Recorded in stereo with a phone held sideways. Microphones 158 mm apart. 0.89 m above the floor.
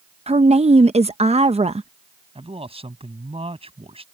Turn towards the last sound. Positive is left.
turn(degrees=-40)  # may be behind; listen again after turning